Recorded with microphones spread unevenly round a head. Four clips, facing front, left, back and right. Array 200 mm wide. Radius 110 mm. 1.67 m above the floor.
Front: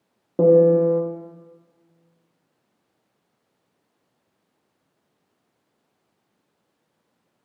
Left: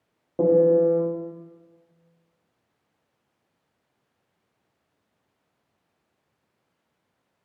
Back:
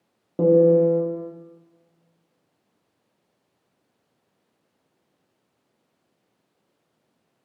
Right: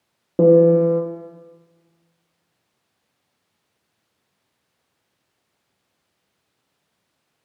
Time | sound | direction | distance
0.4 | a piano | 85° right | 0.7 m